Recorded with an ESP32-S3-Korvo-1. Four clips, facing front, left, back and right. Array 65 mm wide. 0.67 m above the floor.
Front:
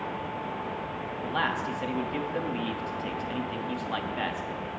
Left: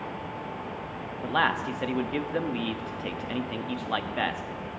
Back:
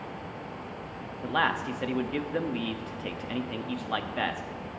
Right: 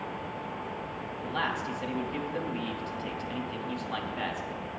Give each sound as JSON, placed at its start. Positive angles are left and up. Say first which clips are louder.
{"t": 1.2, "sound": "a man speaking", "louder": "left 6 dB, back 2 dB", "azimuth_deg": 120, "distance_m": 0.9}